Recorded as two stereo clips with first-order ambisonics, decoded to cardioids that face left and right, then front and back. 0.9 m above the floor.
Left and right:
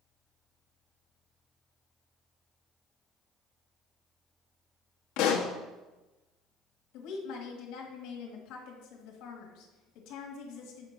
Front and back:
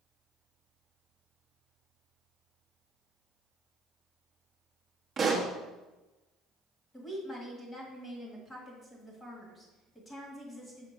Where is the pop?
110° left, 1.2 m.